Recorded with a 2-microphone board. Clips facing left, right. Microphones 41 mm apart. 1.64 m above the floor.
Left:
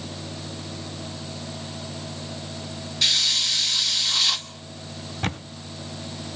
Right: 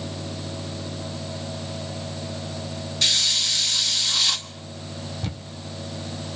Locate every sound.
3.0 s a hiss: 5° left (ahead or behind), 1.4 m
5.2 s a camera shutter: 55° left (ahead or behind), 0.8 m